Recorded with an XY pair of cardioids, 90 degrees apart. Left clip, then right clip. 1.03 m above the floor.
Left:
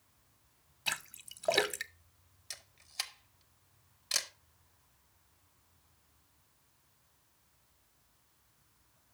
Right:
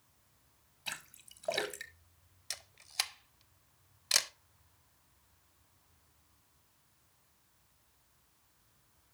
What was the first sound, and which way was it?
A splash, 50° left.